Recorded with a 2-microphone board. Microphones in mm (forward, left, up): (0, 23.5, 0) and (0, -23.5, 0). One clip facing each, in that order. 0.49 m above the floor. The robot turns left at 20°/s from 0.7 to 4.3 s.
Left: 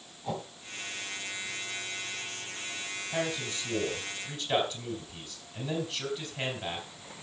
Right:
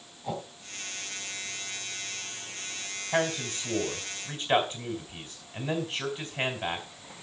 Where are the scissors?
I don't hear scissors.